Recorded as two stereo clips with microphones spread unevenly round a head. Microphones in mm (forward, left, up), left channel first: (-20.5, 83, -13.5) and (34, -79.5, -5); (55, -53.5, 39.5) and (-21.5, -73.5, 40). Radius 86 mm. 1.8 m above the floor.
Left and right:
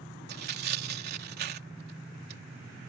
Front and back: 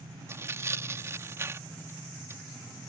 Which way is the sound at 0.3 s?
110° right.